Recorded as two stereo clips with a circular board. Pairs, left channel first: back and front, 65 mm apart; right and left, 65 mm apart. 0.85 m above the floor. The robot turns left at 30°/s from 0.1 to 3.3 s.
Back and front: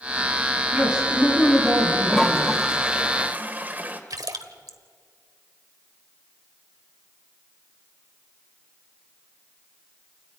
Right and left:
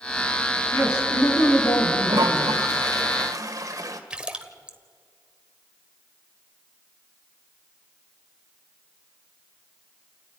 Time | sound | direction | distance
0.7 | a man speaking | 70° right | 9 m
2.1 | a toilet flushing | 100° left | 1.5 m
4.1 | a splash | 15° left | 1.2 m